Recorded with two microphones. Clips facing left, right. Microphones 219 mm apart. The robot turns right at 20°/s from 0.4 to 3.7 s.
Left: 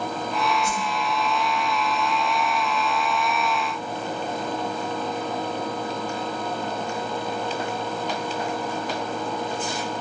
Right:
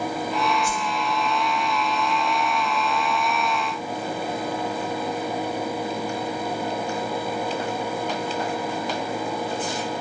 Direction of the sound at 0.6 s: 25° left (ahead or behind).